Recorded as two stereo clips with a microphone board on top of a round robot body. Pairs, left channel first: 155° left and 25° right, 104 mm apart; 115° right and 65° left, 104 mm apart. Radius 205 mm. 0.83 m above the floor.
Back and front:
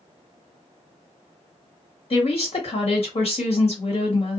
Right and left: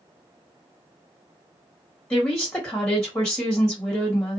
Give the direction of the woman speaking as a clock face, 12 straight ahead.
7 o'clock.